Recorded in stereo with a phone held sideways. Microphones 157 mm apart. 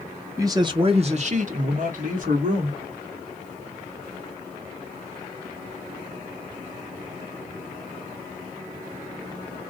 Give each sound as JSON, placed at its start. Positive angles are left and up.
{"t": 0.4, "sound": "a man speaking", "side_deg": -20, "distance_m": 1.0}